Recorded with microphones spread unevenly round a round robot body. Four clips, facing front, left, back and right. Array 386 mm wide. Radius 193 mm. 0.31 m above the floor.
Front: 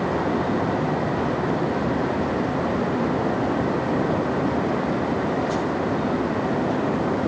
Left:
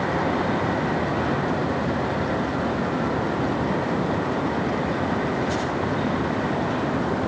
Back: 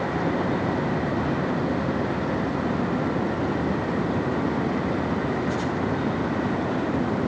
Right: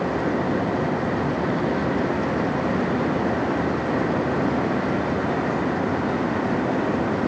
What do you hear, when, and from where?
Only background noise.